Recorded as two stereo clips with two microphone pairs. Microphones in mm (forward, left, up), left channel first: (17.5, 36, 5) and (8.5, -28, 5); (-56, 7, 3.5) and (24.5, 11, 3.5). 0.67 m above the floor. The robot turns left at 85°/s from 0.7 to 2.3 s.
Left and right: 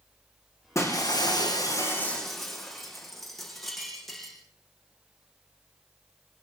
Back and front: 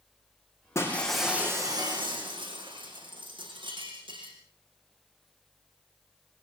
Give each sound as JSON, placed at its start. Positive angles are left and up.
{"t": 0.8, "sound": "breaking glass", "azimuth_deg": 125, "distance_m": 9.5}